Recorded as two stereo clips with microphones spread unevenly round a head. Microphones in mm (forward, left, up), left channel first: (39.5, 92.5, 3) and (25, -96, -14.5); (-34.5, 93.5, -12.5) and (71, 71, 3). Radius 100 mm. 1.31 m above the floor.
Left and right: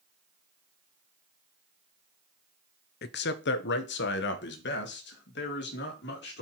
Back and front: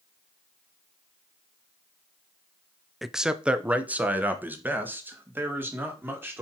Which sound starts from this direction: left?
A man speaking, at 3.0 s.